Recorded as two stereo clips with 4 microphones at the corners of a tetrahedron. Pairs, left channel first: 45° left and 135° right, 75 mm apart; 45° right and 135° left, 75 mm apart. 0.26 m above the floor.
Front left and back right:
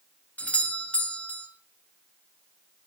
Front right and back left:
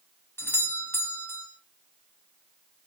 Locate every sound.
0.4 s a doorbell: 15° right, 2.5 m